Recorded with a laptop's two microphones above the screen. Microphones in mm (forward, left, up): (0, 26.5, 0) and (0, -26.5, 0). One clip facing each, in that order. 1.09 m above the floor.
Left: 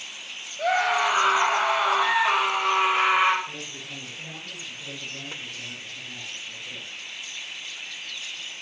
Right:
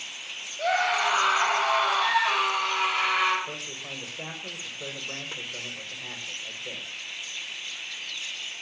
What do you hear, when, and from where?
0.6 s a scream: 5° left (ahead or behind), 7.5 m; by 3.4 s 20° left (ahead or behind), 6 m
3.5 s a man speaking: 70° right (ahead or behind), 6 m